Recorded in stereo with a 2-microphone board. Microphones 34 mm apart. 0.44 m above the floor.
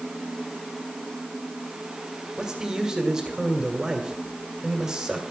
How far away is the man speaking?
About 1.9 m.